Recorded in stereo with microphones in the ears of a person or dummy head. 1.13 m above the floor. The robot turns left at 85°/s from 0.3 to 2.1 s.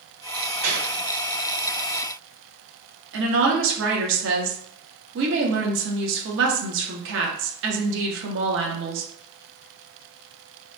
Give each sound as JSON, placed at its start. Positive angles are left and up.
{"t": 0.6, "sound": "a gunshot", "side_deg": -55, "distance_m": 1.1}
{"t": 3.1, "sound": "a woman speaking", "side_deg": -55, "distance_m": 0.7}